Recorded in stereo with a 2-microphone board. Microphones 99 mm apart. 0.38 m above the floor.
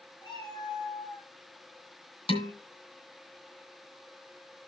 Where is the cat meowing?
40° left (ahead or behind), 6.5 m.